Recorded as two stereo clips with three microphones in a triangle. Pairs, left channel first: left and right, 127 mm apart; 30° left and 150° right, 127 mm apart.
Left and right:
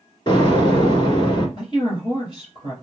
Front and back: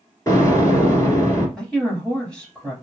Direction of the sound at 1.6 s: 110° left.